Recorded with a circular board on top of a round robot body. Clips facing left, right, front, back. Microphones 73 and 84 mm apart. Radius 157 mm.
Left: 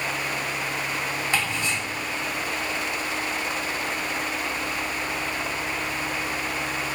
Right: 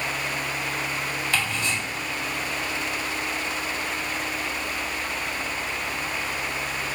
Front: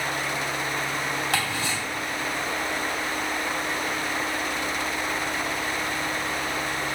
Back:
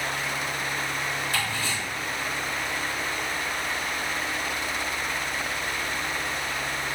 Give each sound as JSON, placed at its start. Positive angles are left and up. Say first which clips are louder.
{"t": 1.3, "sound": "ticking", "louder": "even, front 2 dB", "azimuth_deg": 15, "distance_m": 1.8}